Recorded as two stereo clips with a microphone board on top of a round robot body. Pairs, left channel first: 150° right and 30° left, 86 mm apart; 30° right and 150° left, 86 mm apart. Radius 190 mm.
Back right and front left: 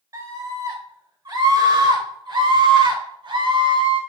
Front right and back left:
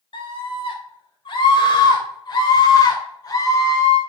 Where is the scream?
15° right, 5 m; by 4.0 s 20° left, 4 m.